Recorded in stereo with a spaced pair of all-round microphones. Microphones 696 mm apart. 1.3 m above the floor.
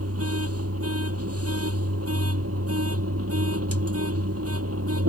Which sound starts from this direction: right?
A machine running, at 0.0 s.